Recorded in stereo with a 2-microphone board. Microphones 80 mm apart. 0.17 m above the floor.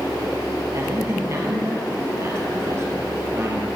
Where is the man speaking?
35° right (ahead or behind), 3 m.